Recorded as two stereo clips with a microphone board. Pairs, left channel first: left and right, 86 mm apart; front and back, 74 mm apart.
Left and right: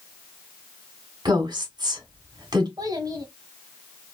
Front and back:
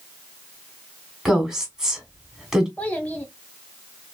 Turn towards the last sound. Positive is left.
turn(degrees=-65)